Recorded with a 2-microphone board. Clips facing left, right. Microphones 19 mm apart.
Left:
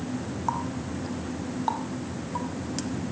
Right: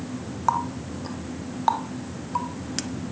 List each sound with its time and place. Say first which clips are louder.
0.5 s a running tap: right 6 dB; 25° right (ahead or behind), 0.8 m